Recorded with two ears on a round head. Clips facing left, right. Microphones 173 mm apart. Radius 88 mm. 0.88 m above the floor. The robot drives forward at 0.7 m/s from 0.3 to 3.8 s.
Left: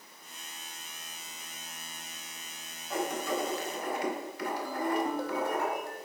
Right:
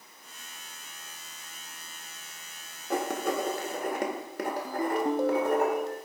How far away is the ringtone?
About 1.0 m.